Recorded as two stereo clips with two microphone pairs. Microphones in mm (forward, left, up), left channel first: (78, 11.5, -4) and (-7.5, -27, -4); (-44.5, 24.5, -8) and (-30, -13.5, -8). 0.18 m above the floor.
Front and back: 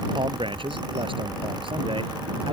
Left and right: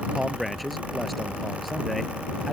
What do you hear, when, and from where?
0.1 s a man speaking: 160° right